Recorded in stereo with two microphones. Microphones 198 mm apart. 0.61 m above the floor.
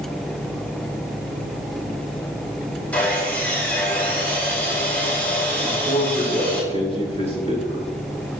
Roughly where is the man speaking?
Left.